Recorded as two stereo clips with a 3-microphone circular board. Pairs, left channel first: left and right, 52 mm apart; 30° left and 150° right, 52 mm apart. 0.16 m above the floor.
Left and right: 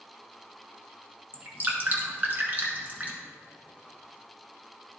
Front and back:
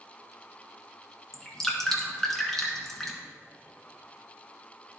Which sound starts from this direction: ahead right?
Dripping, at 1.3 s.